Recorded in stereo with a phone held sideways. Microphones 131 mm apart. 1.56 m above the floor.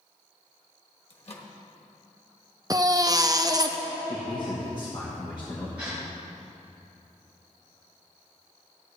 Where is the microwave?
50° left (ahead or behind), 1.3 m.